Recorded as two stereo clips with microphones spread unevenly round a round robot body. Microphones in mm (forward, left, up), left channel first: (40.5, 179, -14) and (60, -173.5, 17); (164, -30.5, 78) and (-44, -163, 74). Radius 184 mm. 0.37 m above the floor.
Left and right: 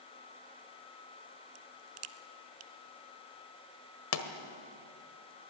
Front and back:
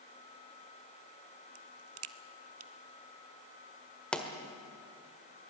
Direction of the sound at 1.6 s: 125° right.